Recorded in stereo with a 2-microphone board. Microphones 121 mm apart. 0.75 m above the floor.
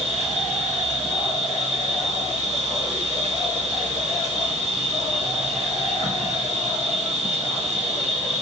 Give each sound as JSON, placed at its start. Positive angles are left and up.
{"t": 0.0, "sound": "an insect", "side_deg": -65, "distance_m": 1.1}